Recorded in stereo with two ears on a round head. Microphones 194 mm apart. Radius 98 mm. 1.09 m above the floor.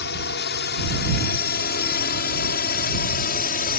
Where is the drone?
50° left (ahead or behind); by 3.8 s 40° left (ahead or behind).